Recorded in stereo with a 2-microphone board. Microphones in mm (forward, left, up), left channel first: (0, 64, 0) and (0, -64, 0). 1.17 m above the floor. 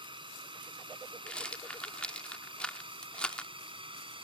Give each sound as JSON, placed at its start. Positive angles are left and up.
{"t": 0.0, "sound": "a drone", "side_deg": -40}
{"t": 1.3, "sound": "a rattle", "side_deg": 10}